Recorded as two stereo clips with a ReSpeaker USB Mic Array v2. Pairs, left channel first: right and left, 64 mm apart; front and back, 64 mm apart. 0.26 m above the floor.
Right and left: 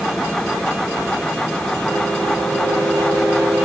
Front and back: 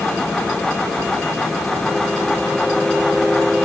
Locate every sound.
Only background noise.